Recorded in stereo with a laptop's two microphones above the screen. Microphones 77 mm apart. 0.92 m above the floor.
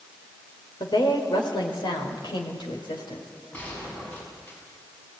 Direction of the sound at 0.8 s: 75° left (ahead or behind).